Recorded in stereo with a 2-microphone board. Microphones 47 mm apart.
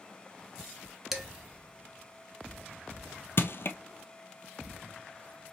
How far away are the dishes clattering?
About 0.7 m.